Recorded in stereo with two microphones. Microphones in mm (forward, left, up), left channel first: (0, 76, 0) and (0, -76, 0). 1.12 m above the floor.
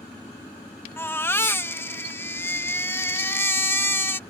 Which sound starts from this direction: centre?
A baby crying, at 1.0 s.